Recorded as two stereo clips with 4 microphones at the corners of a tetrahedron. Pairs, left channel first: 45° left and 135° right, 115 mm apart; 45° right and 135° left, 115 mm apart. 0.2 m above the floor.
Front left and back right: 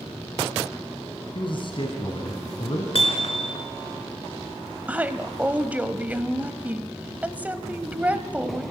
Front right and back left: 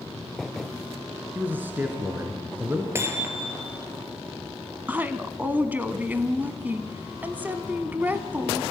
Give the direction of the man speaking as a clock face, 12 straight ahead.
10 o'clock.